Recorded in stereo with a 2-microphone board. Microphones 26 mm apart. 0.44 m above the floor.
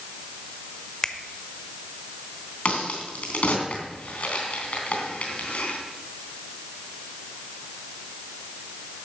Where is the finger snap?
20° left (ahead or behind), 1.0 m.